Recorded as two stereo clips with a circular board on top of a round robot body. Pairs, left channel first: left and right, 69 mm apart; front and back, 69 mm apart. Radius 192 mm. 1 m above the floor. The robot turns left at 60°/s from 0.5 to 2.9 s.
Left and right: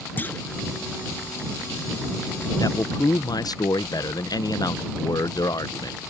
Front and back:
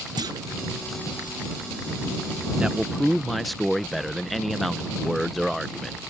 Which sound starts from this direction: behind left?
A clunk, at 0.2 s.